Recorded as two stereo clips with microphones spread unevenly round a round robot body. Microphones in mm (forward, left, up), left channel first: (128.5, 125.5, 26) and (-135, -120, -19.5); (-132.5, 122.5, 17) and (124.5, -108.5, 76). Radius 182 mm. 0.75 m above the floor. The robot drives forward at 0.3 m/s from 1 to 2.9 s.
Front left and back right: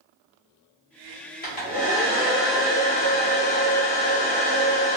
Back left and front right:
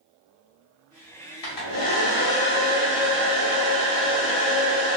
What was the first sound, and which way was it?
A hair dryer, 110° left.